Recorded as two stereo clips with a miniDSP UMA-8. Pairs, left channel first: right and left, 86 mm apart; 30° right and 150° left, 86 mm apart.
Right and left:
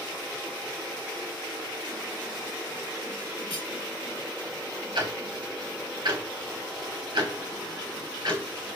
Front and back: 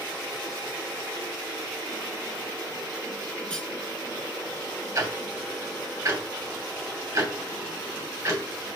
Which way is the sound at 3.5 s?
110° right.